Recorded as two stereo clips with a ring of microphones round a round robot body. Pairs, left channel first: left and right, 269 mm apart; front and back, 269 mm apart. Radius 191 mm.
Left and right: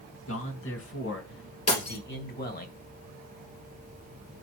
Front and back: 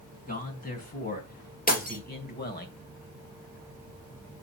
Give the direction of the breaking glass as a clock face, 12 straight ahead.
10 o'clock.